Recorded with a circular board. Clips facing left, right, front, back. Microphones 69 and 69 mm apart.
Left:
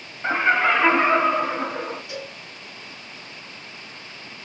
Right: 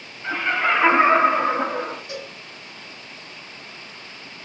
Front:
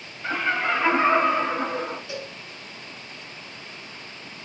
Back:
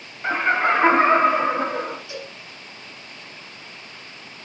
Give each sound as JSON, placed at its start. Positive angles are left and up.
{"t": 0.2, "sound": "laughter", "azimuth_deg": 130, "distance_m": 0.6}
{"t": 2.1, "sound": "a cowbell", "azimuth_deg": -45, "distance_m": 1.7}